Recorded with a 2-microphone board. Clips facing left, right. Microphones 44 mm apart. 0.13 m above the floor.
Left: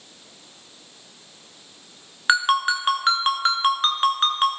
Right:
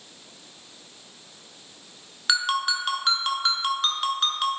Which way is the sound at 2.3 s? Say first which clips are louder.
Left 6 dB; 30° left (ahead or behind).